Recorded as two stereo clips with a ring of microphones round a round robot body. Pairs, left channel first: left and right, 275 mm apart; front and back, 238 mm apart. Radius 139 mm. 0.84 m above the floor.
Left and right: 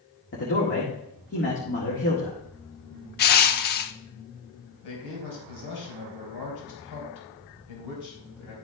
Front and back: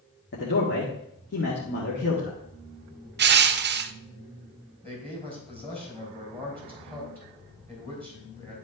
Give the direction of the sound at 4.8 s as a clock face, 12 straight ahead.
9 o'clock.